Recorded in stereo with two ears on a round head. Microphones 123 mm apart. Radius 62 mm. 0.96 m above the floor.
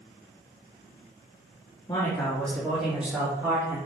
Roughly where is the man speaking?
Left.